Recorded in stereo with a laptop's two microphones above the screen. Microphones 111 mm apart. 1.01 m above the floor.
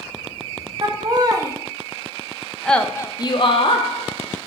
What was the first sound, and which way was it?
Laughter, 40° right (ahead or behind).